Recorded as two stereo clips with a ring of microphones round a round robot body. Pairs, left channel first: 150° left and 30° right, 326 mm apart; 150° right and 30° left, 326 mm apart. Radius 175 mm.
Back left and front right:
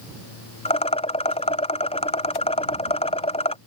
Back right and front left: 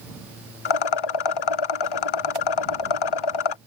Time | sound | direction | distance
0.7 | a rattle | 135° right | ?